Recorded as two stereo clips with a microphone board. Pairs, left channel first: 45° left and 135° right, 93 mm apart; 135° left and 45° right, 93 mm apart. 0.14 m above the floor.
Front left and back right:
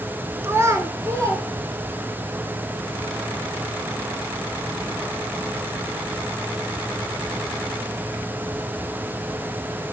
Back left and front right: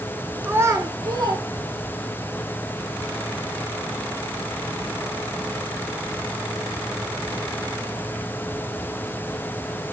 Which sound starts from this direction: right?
A child speaking, at 0.4 s.